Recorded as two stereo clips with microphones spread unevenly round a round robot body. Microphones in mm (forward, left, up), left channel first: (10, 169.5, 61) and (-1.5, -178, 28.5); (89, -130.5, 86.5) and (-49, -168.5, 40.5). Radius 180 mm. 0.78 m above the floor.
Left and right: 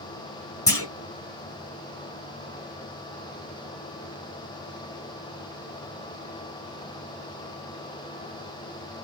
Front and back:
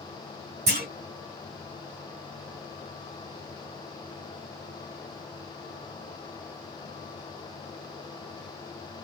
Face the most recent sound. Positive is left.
turn(degrees=170)